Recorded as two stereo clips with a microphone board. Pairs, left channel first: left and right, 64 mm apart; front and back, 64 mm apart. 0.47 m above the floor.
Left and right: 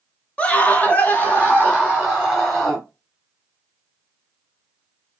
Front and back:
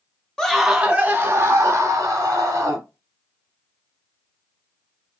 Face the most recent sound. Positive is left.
turn(degrees=160)